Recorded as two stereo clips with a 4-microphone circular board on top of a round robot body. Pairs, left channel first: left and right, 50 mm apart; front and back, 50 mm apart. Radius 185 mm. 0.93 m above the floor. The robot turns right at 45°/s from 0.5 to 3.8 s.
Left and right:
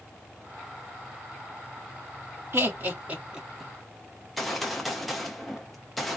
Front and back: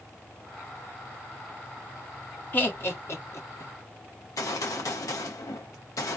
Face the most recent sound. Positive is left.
turn(degrees=0)